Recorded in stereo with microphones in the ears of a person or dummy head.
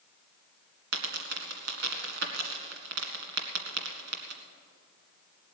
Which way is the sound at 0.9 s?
55° right (ahead or behind).